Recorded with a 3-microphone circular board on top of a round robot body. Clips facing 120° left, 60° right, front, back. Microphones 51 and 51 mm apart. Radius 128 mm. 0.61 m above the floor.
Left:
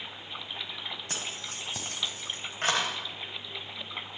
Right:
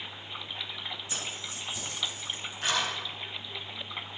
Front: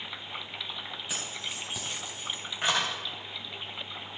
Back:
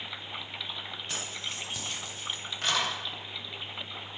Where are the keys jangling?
85° left, 4 m; by 2.9 s 70° left, 3 m.